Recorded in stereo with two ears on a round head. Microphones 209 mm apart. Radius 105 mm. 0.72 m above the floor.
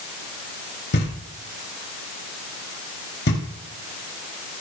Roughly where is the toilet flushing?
I don't hear a toilet flushing.